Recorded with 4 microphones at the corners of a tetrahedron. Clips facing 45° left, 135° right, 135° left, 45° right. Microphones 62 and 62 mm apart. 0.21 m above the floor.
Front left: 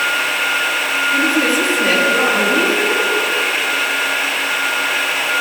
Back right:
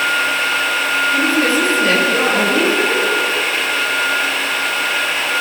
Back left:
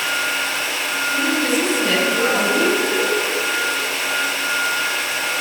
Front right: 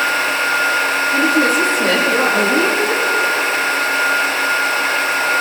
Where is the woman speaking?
30° right, 5.5 m.